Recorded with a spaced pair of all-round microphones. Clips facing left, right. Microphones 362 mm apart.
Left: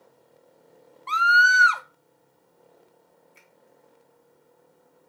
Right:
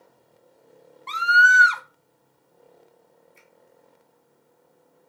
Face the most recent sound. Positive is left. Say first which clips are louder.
# right 2 dB
turn(degrees=75)  # may be behind; listen again after turning